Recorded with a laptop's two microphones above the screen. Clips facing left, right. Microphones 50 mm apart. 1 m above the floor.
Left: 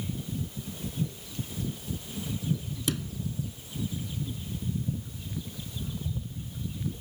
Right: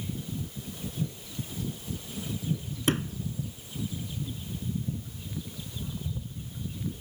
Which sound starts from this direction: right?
A sliding door, at 2.9 s.